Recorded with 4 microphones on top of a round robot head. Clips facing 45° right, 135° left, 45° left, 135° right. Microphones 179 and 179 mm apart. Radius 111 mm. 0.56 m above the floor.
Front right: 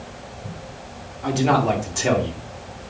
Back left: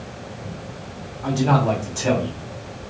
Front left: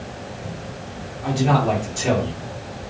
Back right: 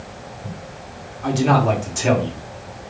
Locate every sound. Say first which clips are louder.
1.2 s a man speaking: even, back right 2 dB; 115° right, 2.5 m